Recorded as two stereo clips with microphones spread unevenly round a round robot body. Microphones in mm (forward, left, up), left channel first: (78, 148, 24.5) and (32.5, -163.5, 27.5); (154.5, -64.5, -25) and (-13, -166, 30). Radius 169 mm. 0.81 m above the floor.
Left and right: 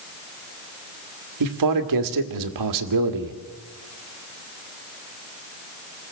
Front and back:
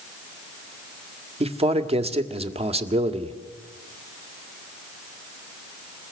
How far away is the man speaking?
About 2 m.